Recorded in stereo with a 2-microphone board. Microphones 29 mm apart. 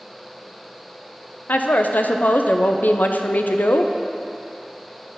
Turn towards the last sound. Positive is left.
turn(degrees=85)